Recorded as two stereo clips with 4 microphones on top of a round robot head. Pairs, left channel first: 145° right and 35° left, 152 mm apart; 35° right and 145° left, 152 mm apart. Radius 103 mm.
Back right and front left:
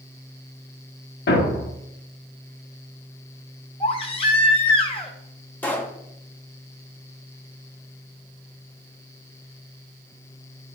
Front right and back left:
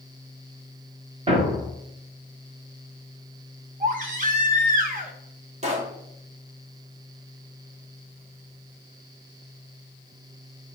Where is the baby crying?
170° left, 1.5 m.